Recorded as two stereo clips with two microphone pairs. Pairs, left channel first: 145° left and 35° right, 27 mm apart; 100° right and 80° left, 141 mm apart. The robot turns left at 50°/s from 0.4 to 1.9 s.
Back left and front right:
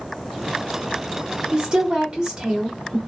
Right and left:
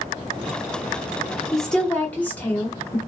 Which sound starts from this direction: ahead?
A woman speaking, at 1.5 s.